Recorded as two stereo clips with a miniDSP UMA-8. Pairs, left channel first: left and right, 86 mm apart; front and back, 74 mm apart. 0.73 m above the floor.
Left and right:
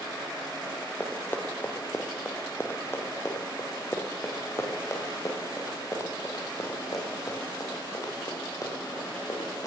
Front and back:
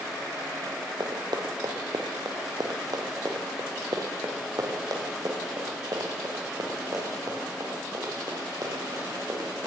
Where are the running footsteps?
160° left, 4.5 m; by 9.7 s 140° left, 10.5 m.